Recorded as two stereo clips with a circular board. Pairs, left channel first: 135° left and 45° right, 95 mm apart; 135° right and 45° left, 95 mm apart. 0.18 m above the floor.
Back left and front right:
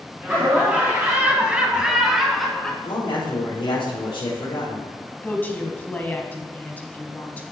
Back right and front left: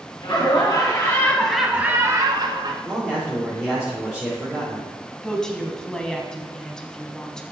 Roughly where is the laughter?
Behind right.